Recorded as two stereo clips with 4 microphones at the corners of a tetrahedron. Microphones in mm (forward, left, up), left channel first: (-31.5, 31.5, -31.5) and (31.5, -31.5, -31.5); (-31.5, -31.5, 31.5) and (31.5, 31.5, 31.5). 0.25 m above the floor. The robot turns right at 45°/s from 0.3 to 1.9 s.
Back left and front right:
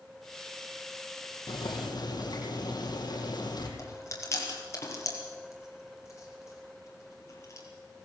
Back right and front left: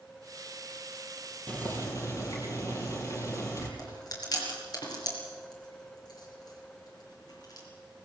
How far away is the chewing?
About 4 m.